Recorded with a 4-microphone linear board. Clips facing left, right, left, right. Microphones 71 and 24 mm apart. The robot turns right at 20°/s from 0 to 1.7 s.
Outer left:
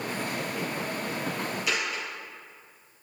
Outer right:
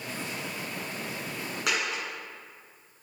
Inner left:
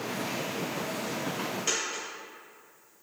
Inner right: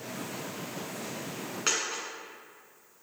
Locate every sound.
1.7 s a dropped coin: 75° right (ahead or behind), 2 m